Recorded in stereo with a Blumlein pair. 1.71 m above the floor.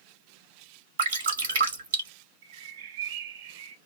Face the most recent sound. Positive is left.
turn(degrees=-60)